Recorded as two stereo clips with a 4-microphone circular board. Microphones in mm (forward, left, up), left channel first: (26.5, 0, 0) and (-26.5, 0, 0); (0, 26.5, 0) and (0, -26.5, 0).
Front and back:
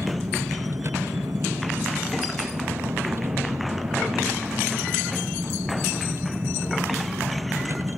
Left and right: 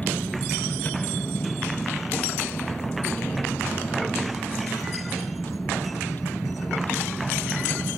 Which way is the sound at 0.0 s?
145° left.